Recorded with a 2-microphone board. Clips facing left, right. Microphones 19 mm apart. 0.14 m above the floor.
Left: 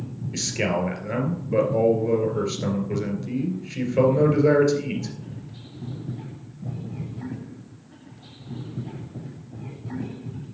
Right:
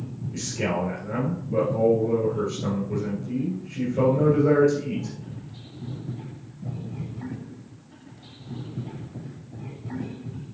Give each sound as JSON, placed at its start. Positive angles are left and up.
{"t": 0.3, "sound": "a man speaking", "side_deg": 50, "distance_m": 2.5}